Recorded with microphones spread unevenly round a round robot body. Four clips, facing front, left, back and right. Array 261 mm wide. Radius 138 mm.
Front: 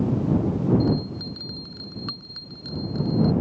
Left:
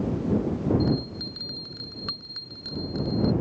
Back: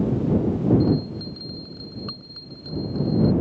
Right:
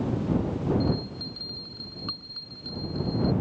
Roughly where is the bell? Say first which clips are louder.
Left 2 dB, back 2 dB; left.